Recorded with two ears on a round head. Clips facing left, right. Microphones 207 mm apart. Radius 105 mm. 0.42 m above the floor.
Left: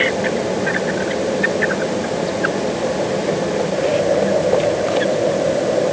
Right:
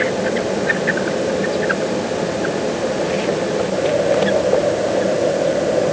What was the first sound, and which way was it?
Only background noise.